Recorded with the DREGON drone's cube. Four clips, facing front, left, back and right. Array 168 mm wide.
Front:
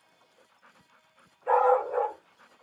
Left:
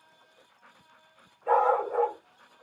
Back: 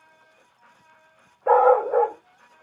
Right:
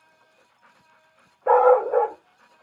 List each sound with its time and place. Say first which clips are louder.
1.5 s a dog barking: right 8 dB, back 6 dB; 140° right, 0.5 m